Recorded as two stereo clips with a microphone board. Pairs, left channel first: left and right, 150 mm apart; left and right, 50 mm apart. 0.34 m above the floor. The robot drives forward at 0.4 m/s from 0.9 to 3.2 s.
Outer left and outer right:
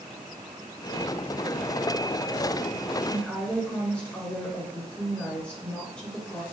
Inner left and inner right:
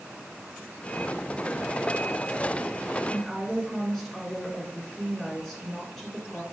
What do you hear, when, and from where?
3.1 s a woman speaking: 10° left (ahead or behind), 4.5 m